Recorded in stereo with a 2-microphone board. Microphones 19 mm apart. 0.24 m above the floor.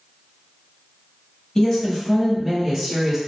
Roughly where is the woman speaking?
Left.